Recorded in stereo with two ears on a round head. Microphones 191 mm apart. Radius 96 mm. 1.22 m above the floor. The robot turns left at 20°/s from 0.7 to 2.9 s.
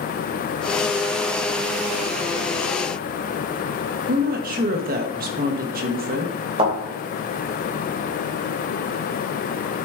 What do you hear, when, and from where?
4.1 s a woman speaking: 45° right (ahead or behind), 1.1 m
6.6 s a thud: 25° right (ahead or behind), 3 m